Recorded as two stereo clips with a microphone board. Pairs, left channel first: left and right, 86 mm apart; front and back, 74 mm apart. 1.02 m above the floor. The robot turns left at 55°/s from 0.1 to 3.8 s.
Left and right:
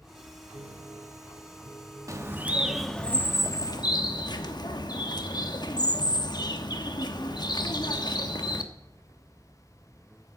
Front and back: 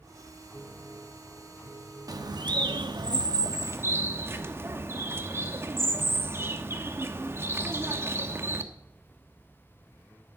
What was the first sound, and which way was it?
A piano, 50° right.